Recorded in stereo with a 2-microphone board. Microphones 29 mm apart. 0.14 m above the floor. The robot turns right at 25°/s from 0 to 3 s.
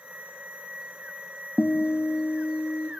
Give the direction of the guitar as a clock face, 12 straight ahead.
10 o'clock.